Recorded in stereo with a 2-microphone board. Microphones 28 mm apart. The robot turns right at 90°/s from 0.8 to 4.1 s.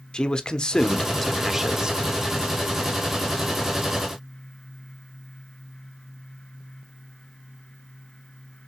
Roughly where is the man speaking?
Behind left.